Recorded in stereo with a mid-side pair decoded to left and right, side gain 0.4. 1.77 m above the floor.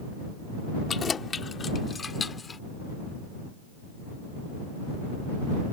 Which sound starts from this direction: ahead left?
Keys jangling, at 0.9 s.